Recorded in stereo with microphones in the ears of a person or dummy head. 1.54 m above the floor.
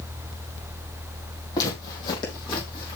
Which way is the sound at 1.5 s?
20° left (ahead or behind).